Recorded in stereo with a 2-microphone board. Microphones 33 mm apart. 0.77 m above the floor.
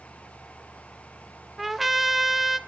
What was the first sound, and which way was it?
A trumpet, 5° right (ahead or behind).